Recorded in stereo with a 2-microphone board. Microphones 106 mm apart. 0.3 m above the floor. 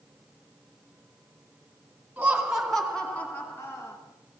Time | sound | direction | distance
2.2 | laughter | 15° right (ahead or behind) | 3 m